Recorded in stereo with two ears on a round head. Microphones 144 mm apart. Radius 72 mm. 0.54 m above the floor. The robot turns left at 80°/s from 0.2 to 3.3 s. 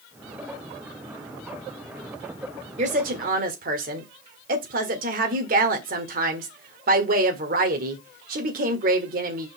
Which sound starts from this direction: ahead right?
A woman speaking, at 2.8 s.